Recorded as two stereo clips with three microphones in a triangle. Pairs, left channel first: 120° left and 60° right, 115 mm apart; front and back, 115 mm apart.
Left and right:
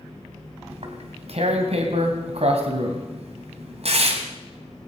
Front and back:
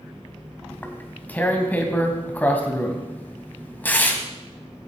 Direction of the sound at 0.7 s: 75° right.